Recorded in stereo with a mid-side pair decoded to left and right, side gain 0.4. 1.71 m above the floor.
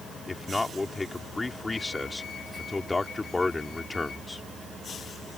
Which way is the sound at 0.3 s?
25° left.